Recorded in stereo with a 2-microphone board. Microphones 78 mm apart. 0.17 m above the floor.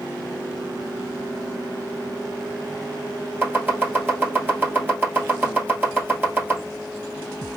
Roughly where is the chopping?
Right.